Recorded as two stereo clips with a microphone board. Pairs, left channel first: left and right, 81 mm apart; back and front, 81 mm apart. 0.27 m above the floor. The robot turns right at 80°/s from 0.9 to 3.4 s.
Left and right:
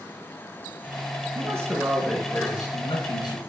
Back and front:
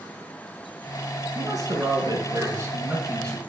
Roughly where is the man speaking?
Ahead right.